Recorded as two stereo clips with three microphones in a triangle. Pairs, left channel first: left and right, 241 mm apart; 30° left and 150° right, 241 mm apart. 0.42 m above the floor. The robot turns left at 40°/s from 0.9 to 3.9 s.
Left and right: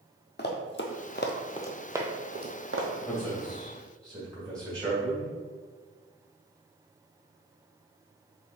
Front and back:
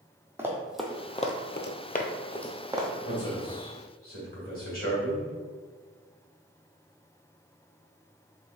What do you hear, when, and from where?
0.4 s running footsteps: 130° left, 0.9 m; by 2.9 s 80° right, 1.1 m
3.0 s a man speaking: 15° left, 1.8 m; by 5.3 s 20° right, 1.8 m